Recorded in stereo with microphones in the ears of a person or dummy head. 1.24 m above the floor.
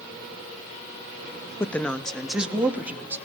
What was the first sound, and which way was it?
A woman speaking, 10° left (ahead or behind).